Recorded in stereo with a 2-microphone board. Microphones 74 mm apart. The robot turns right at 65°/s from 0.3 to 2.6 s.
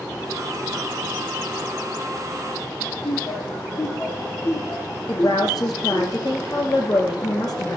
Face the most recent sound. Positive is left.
turn(degrees=65)  # may be behind; listen again after turning